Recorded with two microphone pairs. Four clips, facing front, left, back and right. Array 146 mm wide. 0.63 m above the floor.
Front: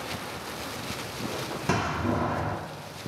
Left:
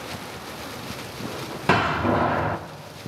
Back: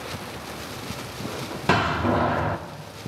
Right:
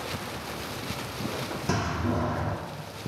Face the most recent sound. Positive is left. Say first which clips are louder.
# left 9 dB, back 6 dB
turn(degrees=130)